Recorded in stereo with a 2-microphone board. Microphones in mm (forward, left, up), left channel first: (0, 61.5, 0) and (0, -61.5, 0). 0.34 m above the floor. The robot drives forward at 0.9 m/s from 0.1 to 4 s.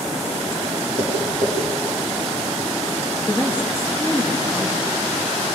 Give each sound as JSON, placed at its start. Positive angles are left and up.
{"t": 1.0, "sound": "tapping", "side_deg": 75, "distance_m": 7.0}
{"t": 3.3, "sound": "a woman speaking", "side_deg": 20, "distance_m": 6.0}